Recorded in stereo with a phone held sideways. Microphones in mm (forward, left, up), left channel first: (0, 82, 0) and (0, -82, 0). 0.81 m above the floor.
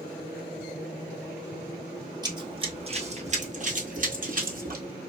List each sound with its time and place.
2.2 s running footsteps: 25° right (ahead or behind), 1.1 m; by 4.8 s 60° right (ahead or behind), 1.5 m